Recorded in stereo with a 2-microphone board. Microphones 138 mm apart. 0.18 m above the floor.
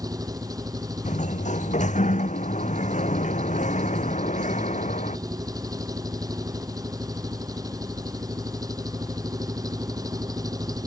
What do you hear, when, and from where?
0.0 s an engine running: 30° right (ahead or behind)
1.1 s a sliding door: 65° left (ahead or behind)